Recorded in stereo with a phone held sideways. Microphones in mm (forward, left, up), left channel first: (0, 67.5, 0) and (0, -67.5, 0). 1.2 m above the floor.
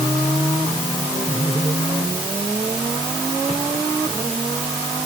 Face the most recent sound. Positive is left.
No sound to turn to.